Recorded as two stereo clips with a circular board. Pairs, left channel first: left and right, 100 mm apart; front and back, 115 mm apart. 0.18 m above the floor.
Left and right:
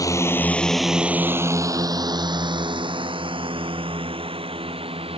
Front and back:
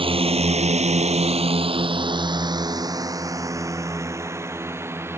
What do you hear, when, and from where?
0.0 s a drone: 145° left; by 5.2 s 110° right